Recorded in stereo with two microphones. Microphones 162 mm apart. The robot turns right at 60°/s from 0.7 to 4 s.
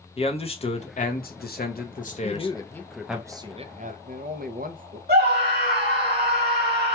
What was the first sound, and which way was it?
A man speaking, 40° left.